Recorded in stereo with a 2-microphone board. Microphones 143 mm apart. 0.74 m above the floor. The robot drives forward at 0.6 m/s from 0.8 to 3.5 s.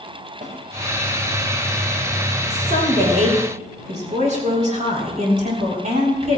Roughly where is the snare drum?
Right.